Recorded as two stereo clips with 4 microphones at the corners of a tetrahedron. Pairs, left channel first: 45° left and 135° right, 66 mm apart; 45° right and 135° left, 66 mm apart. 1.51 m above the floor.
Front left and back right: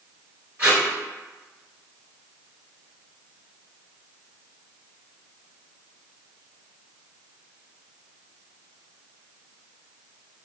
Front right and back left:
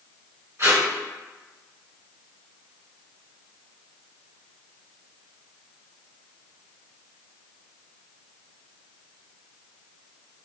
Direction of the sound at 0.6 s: 155° left.